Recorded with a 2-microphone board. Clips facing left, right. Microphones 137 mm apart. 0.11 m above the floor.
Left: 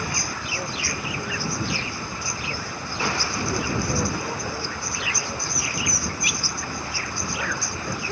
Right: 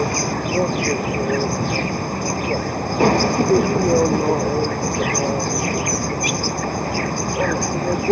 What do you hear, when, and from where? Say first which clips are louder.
0.0 s an insect: right 11 dB; 50° right (ahead or behind)